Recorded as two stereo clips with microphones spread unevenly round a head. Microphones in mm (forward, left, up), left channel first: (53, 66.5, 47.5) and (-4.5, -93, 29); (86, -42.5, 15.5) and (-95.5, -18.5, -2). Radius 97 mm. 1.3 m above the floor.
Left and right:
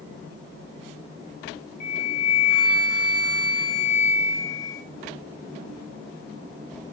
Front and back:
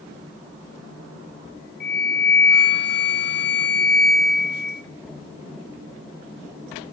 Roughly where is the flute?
Ahead.